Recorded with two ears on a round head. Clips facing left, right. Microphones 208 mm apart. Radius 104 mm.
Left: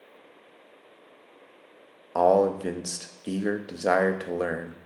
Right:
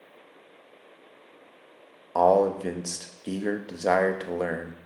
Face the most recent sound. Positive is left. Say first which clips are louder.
# even
turn(degrees=5)  # may be behind; listen again after turning